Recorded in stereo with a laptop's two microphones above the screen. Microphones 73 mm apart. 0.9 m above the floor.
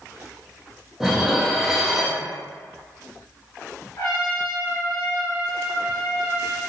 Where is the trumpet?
60° left (ahead or behind), 1.0 m.